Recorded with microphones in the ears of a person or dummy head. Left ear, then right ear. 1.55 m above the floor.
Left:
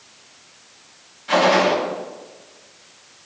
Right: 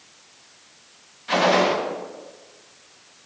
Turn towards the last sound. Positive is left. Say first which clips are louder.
# left 3 dB
turn(degrees=-5)  # may be behind; listen again after turning